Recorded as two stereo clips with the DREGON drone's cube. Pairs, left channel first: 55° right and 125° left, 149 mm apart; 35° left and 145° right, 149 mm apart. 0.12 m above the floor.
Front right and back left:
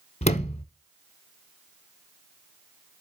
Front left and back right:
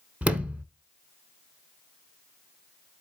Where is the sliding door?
65° right, 0.7 m.